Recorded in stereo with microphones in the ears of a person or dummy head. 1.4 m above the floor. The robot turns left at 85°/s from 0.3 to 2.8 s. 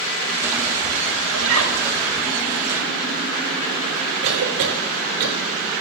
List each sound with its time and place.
1.3 s a zipper: 75° right, 8 m; by 1.8 s 110° right, 8 m
4.2 s a cough: 75° right (ahead or behind), 6 m